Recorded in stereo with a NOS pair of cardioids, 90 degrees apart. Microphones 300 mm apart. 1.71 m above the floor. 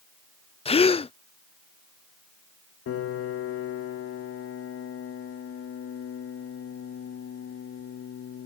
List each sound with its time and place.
0.7 s a gasp: 20° left
2.9 s a piano: 50° left